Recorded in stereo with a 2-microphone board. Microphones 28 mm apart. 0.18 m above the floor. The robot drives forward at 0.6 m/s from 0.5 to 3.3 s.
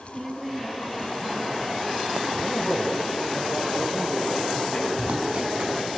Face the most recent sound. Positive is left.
turn(degrees=-55)  # may be behind; listen again after turning